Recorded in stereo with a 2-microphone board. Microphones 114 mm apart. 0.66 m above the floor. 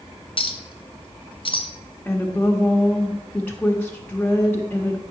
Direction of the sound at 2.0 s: 15° left (ahead or behind).